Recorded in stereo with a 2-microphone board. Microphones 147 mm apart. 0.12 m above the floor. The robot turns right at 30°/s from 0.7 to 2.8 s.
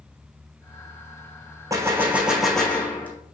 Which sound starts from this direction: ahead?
A gunshot, at 1.7 s.